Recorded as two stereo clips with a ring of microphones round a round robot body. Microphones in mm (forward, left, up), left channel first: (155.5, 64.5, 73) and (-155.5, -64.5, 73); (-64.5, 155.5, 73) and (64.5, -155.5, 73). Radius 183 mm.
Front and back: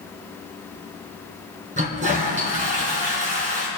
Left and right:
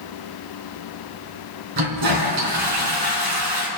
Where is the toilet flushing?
90° right, 2 m.